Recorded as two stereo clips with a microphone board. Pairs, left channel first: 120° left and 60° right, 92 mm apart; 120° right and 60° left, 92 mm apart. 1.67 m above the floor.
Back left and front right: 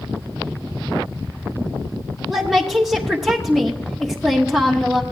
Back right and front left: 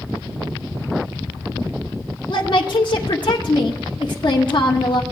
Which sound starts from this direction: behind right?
A woman speaking, at 2.3 s.